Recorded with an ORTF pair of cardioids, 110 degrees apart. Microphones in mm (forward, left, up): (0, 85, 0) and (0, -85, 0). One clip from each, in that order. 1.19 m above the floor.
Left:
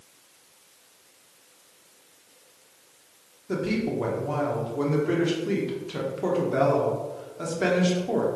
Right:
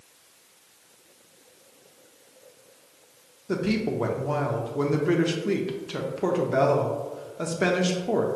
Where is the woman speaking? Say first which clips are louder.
Right 1 dB; 15° right, 0.8 m.